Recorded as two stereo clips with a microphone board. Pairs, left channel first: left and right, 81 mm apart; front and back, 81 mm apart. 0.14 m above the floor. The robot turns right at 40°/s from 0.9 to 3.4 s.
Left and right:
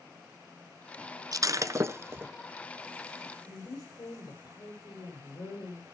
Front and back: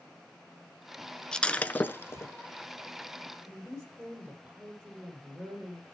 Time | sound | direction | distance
1.3 | breaking glass | 80° right | 0.6 m
3.5 | a woman speaking | 120° left | 6 m